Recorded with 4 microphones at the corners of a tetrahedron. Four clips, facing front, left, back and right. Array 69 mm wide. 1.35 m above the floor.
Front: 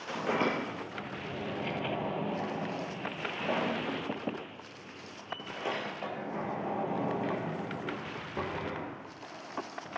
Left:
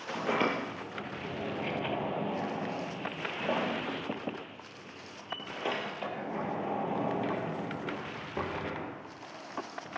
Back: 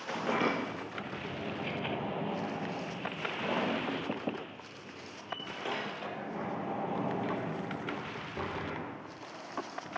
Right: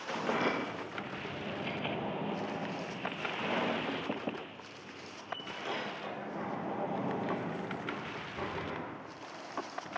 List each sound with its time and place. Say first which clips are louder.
0.2 s a sliding door: left 3 dB, front 1 dB; 65° left, 5 m